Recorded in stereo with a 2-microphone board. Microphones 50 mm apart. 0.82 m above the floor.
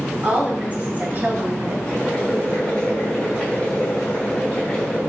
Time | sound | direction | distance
0.2 | a woman speaking | 25° right (ahead or behind) | 3 m
1.9 | boiling | 20° left (ahead or behind) | 4 m